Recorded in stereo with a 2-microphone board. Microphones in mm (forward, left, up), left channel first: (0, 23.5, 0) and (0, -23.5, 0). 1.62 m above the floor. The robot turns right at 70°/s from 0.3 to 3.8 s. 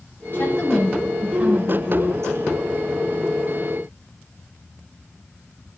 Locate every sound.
0.3 s a woman speaking: 135° left, 5.5 m; by 2.5 s 75° right, 5.5 m